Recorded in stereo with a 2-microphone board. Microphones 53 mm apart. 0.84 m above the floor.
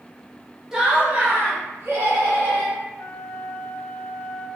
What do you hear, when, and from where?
0.7 s laughter: 10° right (ahead or behind), 0.8 m; by 2.8 s 60° right (ahead or behind), 1.5 m
3.0 s a flute: 75° left (ahead or behind), 0.6 m